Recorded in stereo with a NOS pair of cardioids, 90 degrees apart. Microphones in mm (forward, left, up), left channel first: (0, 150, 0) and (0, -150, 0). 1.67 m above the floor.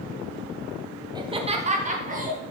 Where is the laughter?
15° right, 1.1 m; by 2.4 s 30° right, 2.5 m.